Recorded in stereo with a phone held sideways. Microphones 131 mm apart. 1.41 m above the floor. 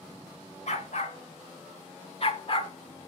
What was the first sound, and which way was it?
A dog barking, 65° left (ahead or behind).